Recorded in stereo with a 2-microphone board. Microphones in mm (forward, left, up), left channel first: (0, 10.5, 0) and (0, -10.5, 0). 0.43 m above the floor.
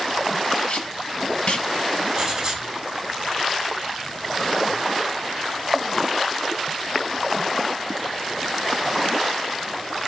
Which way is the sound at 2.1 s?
15° right (ahead or behind).